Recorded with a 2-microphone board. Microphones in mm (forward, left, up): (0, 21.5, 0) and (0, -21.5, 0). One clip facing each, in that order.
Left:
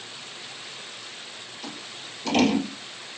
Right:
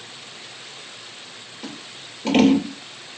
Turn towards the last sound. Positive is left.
turn(degrees=-35)  # may be behind; listen again after turning